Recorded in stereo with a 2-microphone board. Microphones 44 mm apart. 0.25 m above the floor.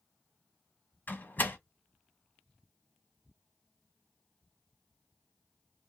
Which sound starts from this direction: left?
A door slam, at 1.1 s.